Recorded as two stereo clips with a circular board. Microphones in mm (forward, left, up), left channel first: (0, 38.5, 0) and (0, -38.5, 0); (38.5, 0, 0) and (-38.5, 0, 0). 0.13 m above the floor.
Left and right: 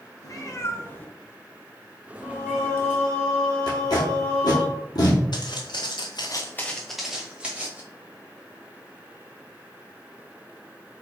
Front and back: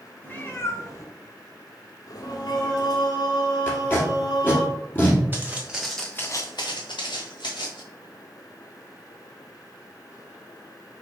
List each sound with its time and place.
0.2 s a cat meowing: 60° left, 0.9 m; by 3.0 s 35° right, 1.4 m
2.2 s singing: 15° left, 1.7 m
3.7 s tape being pulled: 65° left, 1.9 m
5.3 s footsteps: 115° left, 1.3 m; by 7.8 s 20° right, 1.8 m